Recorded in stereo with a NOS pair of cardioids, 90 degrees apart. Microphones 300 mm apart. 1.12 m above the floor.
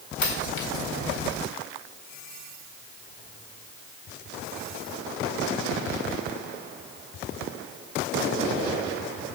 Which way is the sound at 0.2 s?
70° left.